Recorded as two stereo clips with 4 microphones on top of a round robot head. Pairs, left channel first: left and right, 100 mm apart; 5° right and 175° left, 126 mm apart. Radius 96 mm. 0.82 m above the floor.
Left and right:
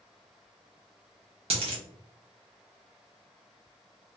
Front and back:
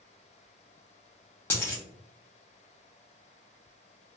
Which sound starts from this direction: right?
A dropped coin, at 1.5 s.